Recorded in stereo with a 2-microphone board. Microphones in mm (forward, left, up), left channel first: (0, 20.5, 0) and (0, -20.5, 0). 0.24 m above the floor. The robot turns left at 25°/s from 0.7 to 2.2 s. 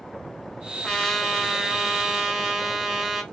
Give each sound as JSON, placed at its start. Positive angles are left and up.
{"t": 0.8, "sound": "a trumpet", "azimuth_deg": 15, "distance_m": 1.6}